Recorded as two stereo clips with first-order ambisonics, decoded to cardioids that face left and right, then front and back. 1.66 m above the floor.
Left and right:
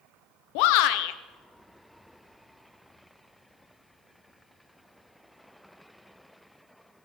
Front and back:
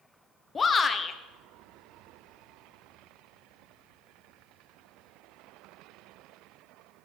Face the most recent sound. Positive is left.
turn(degrees=75)